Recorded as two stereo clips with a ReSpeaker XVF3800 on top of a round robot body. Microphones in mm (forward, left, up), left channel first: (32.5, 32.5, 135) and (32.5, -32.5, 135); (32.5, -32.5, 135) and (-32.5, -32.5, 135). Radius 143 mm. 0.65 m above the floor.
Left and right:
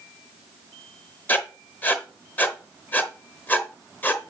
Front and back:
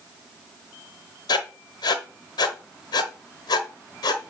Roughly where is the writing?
Ahead left.